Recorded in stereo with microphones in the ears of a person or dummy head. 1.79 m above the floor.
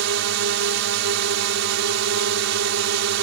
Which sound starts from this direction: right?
A drone, at 0.0 s.